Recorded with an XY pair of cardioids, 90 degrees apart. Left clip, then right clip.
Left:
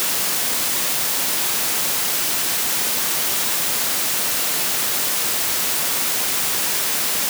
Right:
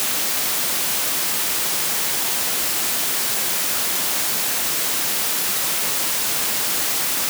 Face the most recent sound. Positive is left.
No sound to turn to.